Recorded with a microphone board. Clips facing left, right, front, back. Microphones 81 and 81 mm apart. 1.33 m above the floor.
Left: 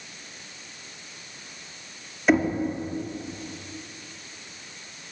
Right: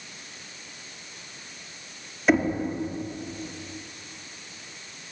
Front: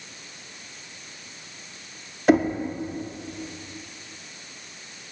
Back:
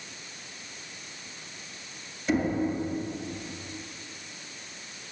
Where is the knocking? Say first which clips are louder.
Left 1 dB, front 8 dB; straight ahead, 2.0 m.